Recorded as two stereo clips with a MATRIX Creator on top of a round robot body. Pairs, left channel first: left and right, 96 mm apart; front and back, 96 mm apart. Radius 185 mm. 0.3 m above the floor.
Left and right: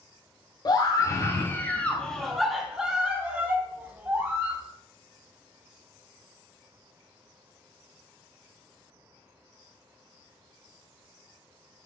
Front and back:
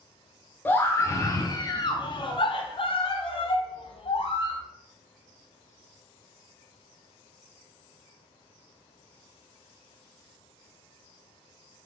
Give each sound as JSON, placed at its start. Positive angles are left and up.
{"t": 0.7, "sound": "a scream", "azimuth_deg": 65, "distance_m": 1.3}